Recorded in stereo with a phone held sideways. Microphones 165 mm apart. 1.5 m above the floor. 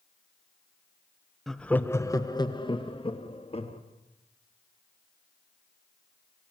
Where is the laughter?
Centre (ahead or behind), 1.1 m; by 3.8 s 40° left (ahead or behind), 3 m.